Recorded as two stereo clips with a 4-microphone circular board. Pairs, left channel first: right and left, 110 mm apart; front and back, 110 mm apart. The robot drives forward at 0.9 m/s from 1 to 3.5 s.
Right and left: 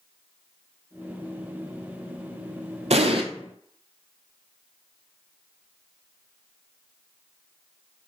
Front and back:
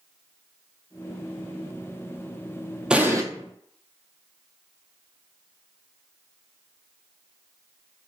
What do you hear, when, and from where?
2.9 s an explosion: 100° left, 0.5 m; by 3.2 s 125° left, 0.7 m